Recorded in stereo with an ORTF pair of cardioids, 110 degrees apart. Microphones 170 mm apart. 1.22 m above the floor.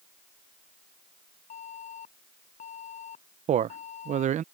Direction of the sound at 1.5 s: 45° left.